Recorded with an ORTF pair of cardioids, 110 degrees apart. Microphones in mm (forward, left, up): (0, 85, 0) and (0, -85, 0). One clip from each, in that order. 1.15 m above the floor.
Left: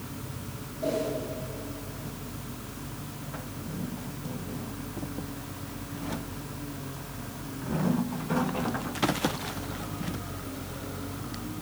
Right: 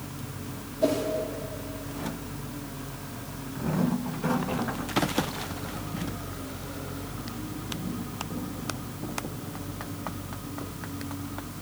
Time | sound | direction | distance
0.8 | a whoosh | 55° right | 3.5 m